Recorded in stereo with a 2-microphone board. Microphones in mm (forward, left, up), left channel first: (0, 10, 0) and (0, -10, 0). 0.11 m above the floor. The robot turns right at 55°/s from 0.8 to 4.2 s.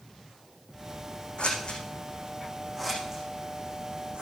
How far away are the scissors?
About 6 m.